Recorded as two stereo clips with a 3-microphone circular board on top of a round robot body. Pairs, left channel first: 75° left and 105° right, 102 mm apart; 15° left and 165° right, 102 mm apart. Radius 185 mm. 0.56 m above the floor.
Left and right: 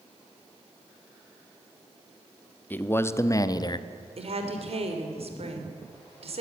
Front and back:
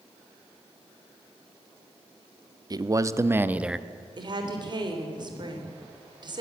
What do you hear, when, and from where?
2.7 s a man speaking: 145° left, 1.2 m; by 3.9 s 110° left, 1.0 m
4.2 s a woman speaking: 120° right, 3.5 m